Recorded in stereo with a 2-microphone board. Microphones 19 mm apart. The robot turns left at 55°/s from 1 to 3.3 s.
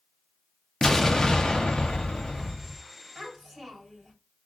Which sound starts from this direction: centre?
A child speaking, at 3.1 s.